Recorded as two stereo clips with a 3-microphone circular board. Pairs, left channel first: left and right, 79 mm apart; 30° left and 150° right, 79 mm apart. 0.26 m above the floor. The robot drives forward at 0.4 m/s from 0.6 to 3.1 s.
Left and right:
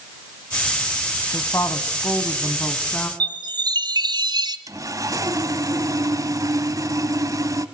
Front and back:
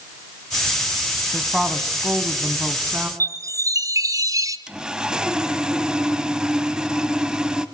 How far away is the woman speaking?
About 1.4 m.